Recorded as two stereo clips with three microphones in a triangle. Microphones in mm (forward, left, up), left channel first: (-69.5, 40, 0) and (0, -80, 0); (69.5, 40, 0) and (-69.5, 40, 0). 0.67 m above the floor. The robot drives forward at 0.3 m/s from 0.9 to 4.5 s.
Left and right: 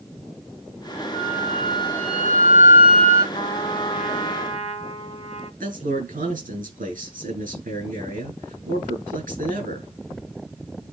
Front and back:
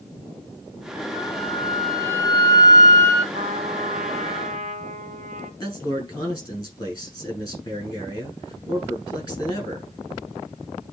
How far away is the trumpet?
About 1.4 m.